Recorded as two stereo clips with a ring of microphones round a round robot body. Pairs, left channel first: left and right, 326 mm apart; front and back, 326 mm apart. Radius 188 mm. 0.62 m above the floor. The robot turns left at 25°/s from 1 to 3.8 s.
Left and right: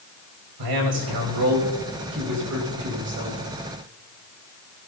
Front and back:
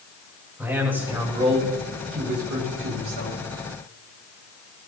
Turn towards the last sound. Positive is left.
turn(degrees=-165)